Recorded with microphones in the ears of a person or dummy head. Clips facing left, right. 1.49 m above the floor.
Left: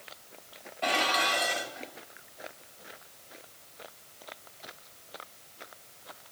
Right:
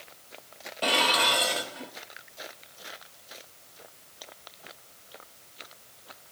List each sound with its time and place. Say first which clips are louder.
0.8 s dishes clattering: right 2 dB; 45° right (ahead or behind), 1.4 m